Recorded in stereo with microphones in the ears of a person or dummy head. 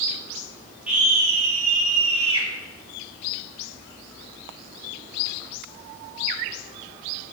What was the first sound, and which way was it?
A scream, 5° right (ahead or behind).